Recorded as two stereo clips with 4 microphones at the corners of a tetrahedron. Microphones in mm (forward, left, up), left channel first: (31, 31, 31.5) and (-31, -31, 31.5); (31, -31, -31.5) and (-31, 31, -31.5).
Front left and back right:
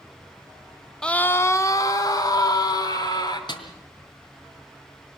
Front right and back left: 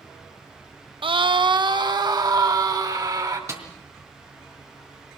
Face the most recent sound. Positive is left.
turn(degrees=80)